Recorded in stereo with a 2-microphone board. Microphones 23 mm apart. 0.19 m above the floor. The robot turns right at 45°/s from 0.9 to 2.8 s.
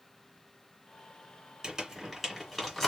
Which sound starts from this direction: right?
Crumpling, at 1.6 s.